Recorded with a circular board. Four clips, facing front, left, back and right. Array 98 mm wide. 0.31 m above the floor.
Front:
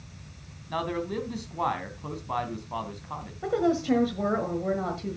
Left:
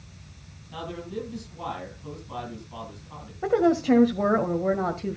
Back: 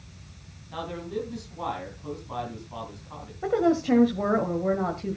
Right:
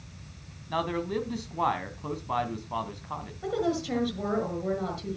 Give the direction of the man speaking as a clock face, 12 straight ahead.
2 o'clock.